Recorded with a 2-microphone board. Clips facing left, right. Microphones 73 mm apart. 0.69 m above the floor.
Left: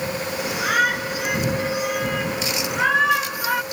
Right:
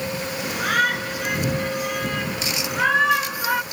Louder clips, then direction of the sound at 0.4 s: Left 1 dB; 5° left (ahead or behind).